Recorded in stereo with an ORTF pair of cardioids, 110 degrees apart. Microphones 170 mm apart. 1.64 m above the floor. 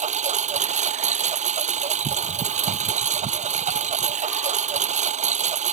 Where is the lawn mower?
45° right.